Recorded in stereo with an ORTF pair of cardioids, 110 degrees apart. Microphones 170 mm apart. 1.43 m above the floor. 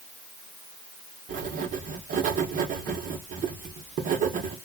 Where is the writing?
50° right, 1.2 m.